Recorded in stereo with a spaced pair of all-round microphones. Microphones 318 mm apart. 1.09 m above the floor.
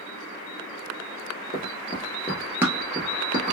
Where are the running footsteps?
25° left (ahead or behind), 1.2 m; by 3.5 s 35° right (ahead or behind), 1.2 m.